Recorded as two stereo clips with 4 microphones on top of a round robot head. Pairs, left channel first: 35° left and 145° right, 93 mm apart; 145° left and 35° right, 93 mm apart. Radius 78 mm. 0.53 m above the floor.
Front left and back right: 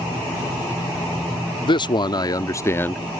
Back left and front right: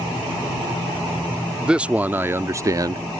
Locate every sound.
1.6 s a man speaking: 40° left; by 3.0 s 30° right